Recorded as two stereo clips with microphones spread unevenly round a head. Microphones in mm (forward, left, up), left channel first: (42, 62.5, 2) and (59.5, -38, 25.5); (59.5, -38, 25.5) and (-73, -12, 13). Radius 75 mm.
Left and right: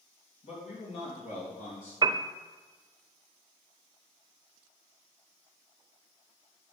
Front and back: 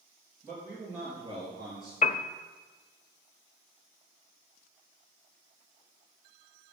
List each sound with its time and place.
0.4 s a man speaking: 90° left, 3 m; by 1.9 s 100° left, 4.5 m
2.0 s a piano: 40° right, 0.6 m